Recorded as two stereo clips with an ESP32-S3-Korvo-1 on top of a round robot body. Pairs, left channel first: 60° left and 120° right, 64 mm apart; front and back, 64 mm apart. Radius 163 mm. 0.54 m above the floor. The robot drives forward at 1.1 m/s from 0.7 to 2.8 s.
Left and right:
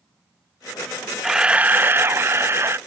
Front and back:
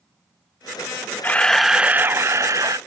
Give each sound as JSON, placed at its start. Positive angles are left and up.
{"t": 1.2, "sound": "a camera shutter", "azimuth_deg": -40}